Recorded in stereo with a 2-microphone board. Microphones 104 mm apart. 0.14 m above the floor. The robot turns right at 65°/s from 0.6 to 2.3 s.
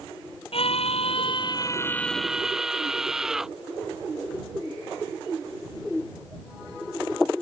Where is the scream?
75° left; by 3.5 s 175° right.